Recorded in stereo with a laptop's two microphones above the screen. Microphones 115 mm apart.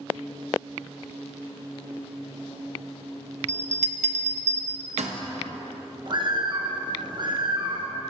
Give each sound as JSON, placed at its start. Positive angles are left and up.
{"t": 3.5, "sound": "a bell", "side_deg": -85, "distance_m": 0.8}
{"t": 6.1, "sound": "a bird", "side_deg": -40, "distance_m": 1.0}